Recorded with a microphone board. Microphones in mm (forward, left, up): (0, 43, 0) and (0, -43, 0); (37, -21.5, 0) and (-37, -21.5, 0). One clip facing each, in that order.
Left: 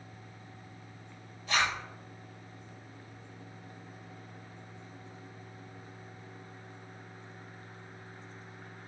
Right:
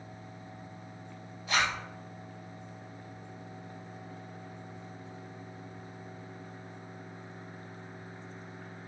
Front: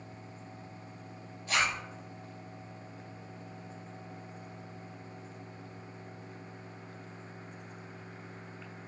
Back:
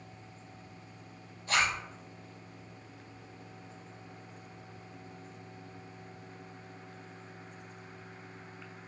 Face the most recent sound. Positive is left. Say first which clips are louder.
# even, back 1 dB
turn(degrees=-170)